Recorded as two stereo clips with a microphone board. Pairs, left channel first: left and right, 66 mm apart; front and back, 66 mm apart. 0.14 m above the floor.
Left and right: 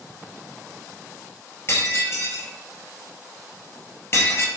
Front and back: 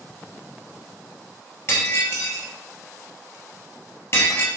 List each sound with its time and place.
1.7 s breaking glass: 40° left, 1.6 m